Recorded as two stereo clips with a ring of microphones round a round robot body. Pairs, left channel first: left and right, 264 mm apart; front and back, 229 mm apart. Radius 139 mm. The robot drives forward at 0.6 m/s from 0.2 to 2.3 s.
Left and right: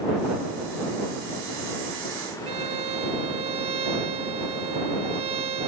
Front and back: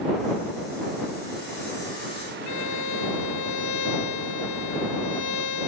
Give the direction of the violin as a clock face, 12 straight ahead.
1 o'clock.